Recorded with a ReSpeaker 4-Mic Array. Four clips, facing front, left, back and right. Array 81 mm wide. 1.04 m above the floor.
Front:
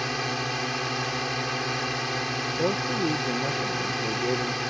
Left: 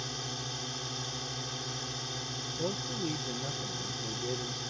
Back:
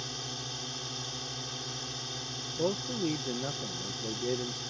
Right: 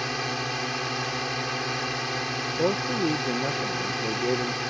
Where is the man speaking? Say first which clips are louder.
Right 10 dB, front 4 dB; 70° right.